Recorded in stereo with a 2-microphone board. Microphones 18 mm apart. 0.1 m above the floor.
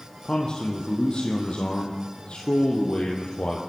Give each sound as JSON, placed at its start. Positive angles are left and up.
{"t": 0.2, "sound": "a man speaking", "side_deg": 40, "distance_m": 4.0}